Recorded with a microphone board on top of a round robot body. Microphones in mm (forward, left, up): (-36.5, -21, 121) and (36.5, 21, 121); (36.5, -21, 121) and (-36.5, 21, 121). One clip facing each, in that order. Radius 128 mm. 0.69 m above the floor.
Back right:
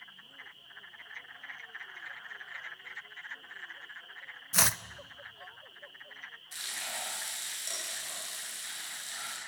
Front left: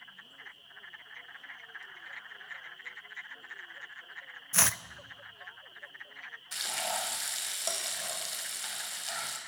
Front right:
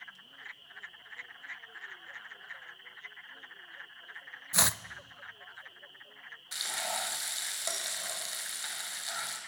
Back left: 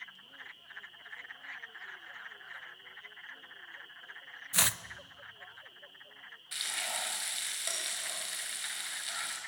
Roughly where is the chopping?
Right.